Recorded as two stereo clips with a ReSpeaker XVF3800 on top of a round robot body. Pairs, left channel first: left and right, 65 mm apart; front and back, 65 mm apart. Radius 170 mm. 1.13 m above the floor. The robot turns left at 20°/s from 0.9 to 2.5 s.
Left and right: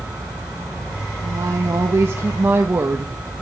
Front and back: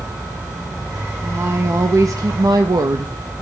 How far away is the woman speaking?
About 1.2 m.